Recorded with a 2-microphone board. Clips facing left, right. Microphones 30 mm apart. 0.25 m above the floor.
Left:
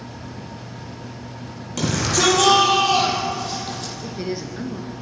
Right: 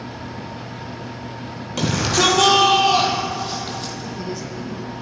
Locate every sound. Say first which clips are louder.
1.8 s a shout: right 2 dB; 15° right (ahead or behind), 7 m; by 3.9 s 10° right (ahead or behind), 8 m
4.0 s a woman speaking: left 1 dB; 40° left (ahead or behind), 4 m